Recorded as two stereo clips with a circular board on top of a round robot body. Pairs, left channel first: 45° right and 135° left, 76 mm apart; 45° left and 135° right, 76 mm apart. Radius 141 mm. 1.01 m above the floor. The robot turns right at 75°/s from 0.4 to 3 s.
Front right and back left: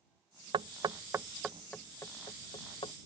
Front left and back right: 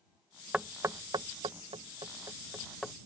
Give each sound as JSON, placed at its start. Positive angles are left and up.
{"t": 0.5, "sound": "knocking", "azimuth_deg": 145}